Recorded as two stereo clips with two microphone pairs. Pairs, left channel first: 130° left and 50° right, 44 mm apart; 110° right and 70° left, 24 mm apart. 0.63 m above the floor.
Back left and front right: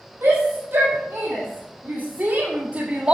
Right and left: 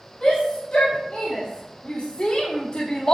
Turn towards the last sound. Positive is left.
turn(degrees=-95)